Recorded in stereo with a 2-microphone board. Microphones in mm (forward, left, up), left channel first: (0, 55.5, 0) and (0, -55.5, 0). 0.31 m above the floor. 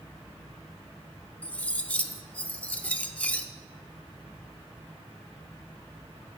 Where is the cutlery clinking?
10° left (ahead or behind), 0.6 m.